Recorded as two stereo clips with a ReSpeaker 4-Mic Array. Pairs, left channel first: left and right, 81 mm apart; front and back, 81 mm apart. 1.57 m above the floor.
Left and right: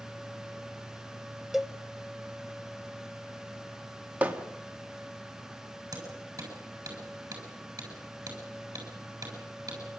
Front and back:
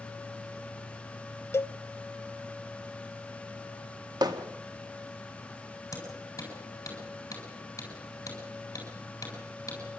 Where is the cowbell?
10° right, 0.6 m.